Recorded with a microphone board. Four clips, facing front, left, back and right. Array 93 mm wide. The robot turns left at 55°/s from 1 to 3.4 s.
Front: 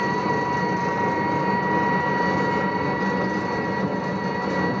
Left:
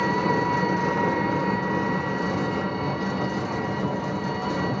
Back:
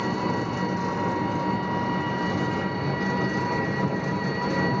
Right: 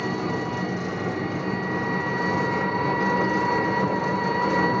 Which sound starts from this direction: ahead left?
An engine running, at 0.0 s.